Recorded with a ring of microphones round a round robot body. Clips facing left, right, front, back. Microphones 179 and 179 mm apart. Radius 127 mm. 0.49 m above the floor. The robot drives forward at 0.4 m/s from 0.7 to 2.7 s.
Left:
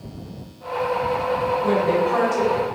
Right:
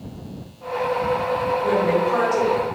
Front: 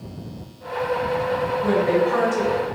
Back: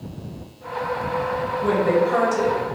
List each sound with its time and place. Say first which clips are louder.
1.6 s a woman speaking: even, back 1 dB; 175° right, 0.8 m; by 2.6 s straight behind, 1.0 m